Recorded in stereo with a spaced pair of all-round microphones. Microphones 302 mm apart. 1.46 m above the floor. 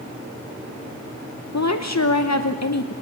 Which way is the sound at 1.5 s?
60° left (ahead or behind).